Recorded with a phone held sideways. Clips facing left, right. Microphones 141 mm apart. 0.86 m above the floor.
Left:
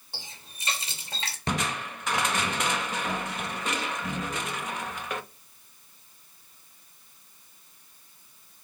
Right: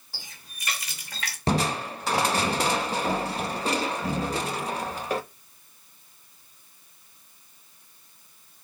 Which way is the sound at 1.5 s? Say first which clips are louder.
Right 6 dB; 35° right (ahead or behind).